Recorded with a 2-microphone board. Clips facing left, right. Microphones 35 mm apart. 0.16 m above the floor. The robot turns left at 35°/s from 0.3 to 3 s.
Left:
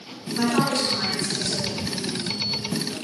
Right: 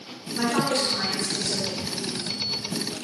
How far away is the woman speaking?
About 1.8 m.